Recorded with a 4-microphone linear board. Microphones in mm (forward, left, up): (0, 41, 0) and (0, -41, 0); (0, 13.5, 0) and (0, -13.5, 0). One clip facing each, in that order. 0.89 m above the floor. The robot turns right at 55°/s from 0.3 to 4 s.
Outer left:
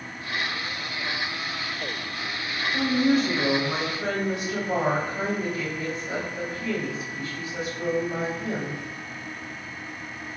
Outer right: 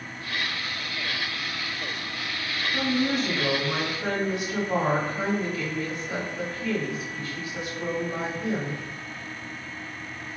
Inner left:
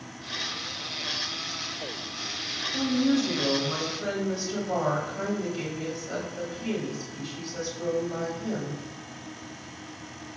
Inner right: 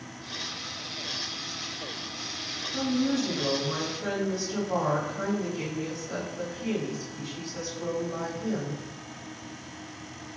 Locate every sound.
2.7 s a woman speaking: 25° right, 1.1 m; by 8.8 s 40° left, 1.1 m